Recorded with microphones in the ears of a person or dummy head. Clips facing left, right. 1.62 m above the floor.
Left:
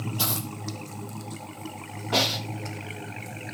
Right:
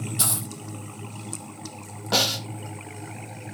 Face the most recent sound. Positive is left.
turn(degrees=-70)  # may be behind; listen again after turning